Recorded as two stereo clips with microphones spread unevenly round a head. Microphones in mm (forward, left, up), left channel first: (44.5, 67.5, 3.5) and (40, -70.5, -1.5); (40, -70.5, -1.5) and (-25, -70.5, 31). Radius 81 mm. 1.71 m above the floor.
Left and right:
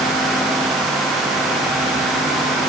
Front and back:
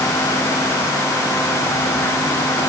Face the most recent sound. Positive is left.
No sound to turn to.